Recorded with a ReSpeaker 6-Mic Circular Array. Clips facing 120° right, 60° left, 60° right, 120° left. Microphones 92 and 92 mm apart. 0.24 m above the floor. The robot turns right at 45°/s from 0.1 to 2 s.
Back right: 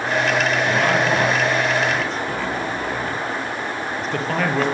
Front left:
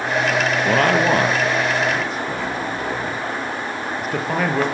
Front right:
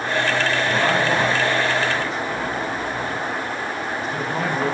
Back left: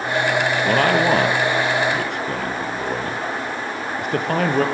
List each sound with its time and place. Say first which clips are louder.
0.7 s a man speaking: front left 2 dB, back left 5 dB; 85° left, 5 m; by 4.7 s 145° left, 5 m